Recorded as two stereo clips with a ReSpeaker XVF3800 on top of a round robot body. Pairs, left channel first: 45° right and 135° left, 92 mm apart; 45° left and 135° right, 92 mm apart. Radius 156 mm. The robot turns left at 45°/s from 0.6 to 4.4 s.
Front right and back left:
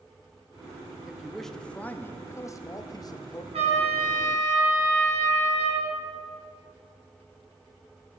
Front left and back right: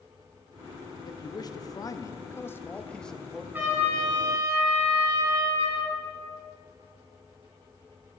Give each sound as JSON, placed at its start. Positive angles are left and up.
{"t": 1.1, "sound": "a man speaking", "azimuth_deg": 55, "distance_m": 0.7}
{"t": 3.5, "sound": "a trumpet", "azimuth_deg": 155, "distance_m": 2.0}